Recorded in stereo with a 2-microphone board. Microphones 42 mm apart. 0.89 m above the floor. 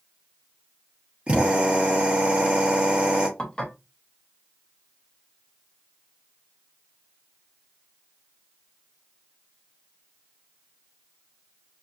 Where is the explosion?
I don't hear an explosion.